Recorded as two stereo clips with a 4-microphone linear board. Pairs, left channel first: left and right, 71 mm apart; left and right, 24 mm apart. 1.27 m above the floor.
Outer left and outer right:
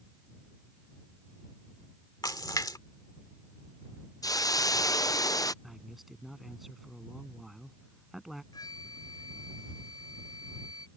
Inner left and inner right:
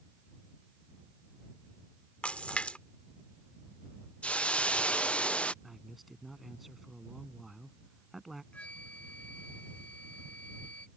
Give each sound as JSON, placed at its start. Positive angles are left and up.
{"t": 2.2, "sound": "a splash", "side_deg": 70}
{"t": 4.2, "sound": "a hiss", "side_deg": 60}
{"t": 5.6, "sound": "a man speaking", "side_deg": -5}
{"t": 8.5, "sound": "a flute", "side_deg": 70}